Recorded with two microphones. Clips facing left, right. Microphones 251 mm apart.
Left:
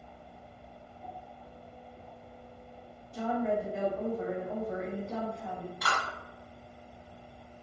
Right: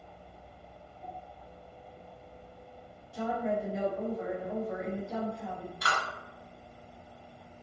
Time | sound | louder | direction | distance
3.1 | a woman speaking | left 1 dB | 5° right (ahead or behind) | 1.3 m
5.8 | a clap | right 1 dB | 30° right (ahead or behind) | 1.6 m